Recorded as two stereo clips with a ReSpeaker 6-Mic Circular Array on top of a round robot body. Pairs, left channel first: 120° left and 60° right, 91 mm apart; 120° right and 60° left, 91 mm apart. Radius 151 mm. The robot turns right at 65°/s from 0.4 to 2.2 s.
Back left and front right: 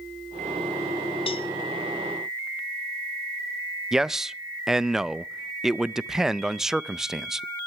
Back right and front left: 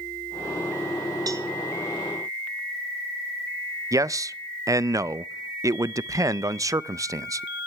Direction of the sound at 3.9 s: 25° left.